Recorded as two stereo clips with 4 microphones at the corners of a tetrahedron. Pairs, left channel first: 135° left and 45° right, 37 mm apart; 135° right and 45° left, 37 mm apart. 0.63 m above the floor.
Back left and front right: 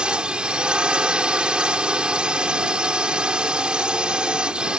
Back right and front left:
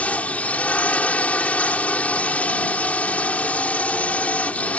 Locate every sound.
0.0 s a drone: 100° right